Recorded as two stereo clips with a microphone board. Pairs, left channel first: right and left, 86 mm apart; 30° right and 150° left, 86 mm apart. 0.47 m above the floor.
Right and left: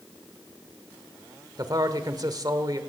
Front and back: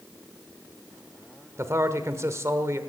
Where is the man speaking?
105° left, 1.2 m.